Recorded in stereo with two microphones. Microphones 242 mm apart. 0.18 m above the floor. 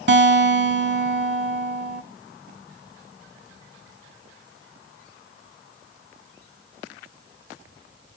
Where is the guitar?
45° right (ahead or behind), 1.2 m.